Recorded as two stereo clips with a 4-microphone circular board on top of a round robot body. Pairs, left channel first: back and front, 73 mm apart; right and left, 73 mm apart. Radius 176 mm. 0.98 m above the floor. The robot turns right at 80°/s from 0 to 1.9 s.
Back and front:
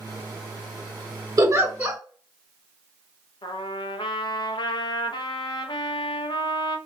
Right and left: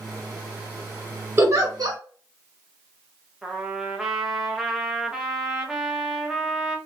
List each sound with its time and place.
1.4 s a giggle: 35° left, 2 m; by 2.0 s 75° left, 2 m
3.4 s a trumpet: 170° left, 0.7 m